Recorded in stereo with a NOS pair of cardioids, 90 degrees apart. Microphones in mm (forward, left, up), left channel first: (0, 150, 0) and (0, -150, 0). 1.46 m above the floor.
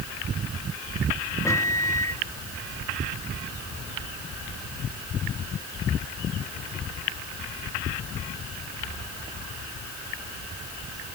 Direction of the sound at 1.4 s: 10° left.